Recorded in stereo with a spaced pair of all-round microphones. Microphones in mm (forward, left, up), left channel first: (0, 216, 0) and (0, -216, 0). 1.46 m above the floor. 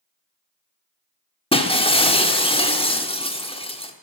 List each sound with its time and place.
1.5 s breaking glass: 10° left (ahead or behind), 1.1 m